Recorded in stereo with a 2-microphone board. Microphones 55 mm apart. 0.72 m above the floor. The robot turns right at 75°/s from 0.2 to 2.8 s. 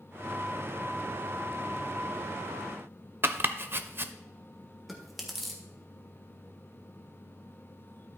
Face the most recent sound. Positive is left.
turn(degrees=0)  # may be behind; listen again after turning